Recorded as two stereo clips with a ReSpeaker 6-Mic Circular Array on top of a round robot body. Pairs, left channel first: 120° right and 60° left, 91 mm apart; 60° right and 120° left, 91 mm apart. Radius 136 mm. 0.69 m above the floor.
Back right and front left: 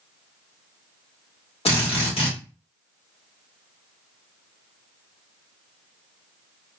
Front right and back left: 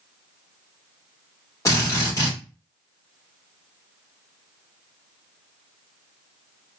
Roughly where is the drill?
Behind right.